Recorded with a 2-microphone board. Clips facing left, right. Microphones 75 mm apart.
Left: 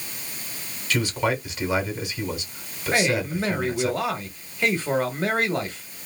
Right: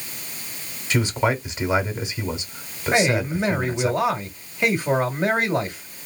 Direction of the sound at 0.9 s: 25° right (ahead or behind).